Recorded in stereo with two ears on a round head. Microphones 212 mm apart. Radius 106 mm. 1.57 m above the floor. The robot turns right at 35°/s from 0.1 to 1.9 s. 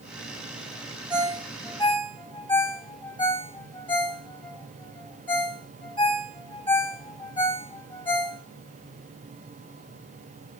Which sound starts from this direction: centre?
A ringtone, at 1.1 s.